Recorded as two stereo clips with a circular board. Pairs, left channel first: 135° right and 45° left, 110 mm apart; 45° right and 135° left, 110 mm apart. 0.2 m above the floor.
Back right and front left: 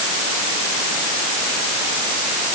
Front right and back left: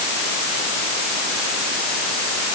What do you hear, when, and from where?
Only background noise.